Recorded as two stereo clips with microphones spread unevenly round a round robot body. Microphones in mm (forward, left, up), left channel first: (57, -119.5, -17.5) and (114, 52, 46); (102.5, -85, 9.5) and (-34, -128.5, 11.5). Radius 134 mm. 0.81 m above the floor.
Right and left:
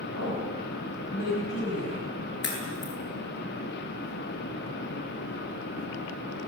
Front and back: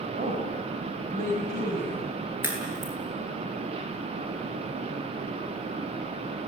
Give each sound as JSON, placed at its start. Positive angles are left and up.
{"t": 0.1, "sound": "a woman speaking", "azimuth_deg": -145, "distance_m": 6.0}
{"t": 2.4, "sound": "a crack", "azimuth_deg": -85, "distance_m": 10.0}